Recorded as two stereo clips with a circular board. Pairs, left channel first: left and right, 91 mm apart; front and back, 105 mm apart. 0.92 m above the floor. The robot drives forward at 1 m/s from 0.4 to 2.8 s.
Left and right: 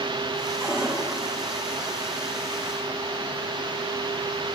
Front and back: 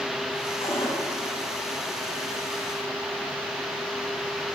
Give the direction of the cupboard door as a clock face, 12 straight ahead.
1 o'clock.